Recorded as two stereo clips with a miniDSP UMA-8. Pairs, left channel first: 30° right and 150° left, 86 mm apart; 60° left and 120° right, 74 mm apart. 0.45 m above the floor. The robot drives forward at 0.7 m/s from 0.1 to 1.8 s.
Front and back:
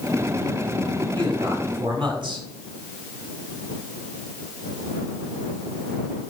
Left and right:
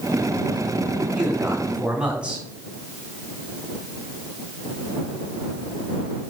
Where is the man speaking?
165° left, 3 m.